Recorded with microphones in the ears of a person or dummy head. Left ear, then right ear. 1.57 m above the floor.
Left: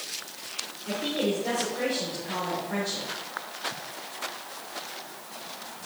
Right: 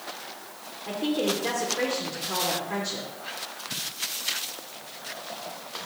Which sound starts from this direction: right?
A woman speaking, at 0.9 s.